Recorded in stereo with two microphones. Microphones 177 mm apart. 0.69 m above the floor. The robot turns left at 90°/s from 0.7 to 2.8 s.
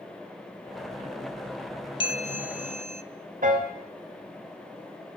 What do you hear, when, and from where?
2.0 s a bell: 140° left, 0.5 m; by 3.0 s 65° left, 0.5 m
3.4 s a piano: 55° right (ahead or behind), 1.9 m